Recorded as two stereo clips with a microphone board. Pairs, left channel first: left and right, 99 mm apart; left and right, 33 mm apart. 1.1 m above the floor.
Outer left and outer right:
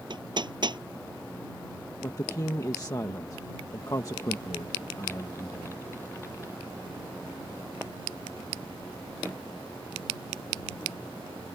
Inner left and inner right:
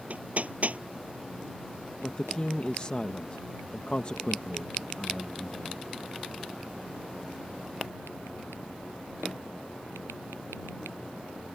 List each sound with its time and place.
0.1 s hammering: 55° right (ahead or behind)
2.0 s a woman speaking: 40° left (ahead or behind)